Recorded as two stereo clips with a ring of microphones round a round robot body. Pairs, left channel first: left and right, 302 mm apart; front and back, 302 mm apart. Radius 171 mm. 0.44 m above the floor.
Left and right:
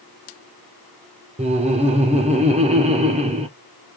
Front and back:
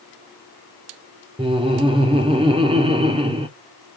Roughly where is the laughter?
Behind right.